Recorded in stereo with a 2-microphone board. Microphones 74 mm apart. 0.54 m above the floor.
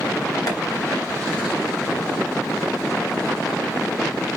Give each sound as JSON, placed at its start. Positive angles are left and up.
{"t": 0.5, "sound": "tapping", "side_deg": 55, "distance_m": 5.0}